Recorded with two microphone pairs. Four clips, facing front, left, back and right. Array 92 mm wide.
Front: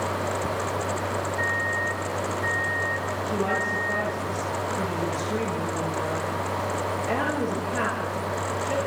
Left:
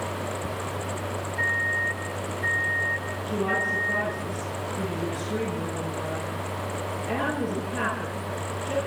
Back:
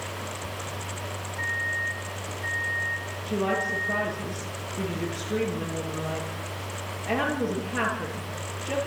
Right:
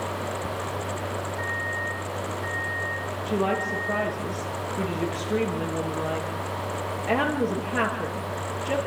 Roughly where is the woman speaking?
Right.